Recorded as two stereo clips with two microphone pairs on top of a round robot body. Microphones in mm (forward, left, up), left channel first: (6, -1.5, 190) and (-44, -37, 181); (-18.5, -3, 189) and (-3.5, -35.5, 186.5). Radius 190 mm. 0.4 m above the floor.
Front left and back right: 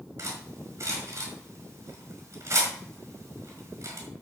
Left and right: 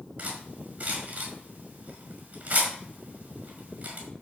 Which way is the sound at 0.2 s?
105° right.